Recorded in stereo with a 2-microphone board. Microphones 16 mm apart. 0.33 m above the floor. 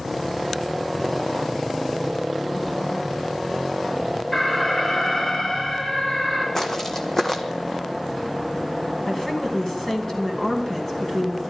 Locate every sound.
4.3 s an alarm: 30° left (ahead or behind), 8.5 m
6.5 s footsteps: 20° left (ahead or behind), 1.1 m
9.1 s a woman speaking: 20° left (ahead or behind), 3 m